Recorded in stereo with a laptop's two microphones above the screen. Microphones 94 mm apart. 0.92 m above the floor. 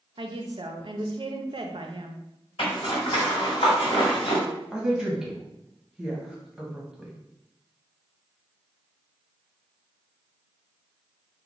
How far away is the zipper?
About 1.9 m.